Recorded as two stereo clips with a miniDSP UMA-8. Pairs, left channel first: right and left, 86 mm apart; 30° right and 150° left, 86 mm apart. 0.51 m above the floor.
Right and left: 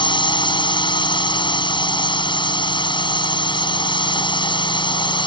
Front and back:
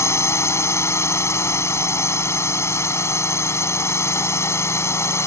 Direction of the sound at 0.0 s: 85° right.